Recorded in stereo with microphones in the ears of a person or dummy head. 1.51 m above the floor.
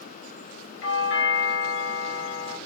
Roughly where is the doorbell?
Left.